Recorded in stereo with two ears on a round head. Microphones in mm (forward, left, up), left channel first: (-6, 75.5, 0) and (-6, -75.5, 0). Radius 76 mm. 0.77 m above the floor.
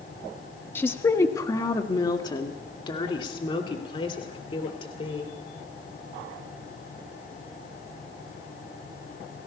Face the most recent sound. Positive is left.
turn(degrees=35)  # may be behind; listen again after turning